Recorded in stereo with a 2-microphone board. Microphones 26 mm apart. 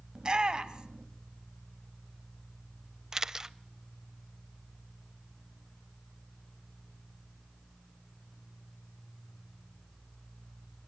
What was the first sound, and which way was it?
A shout, 30° right (ahead or behind).